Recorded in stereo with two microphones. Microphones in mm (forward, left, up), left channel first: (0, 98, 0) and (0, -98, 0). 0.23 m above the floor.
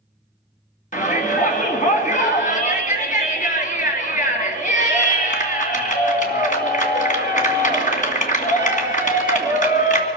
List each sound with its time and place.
0.9 s a shout: 40° left (ahead or behind), 2.5 m